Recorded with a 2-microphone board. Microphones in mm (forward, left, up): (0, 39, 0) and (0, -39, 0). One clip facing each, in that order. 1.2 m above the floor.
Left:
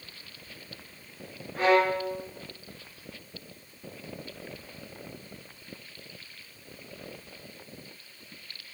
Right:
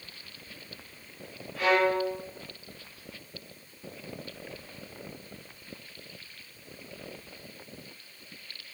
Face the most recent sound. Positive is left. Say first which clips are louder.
# left 1 dB
turn(degrees=40)  # may be behind; listen again after turning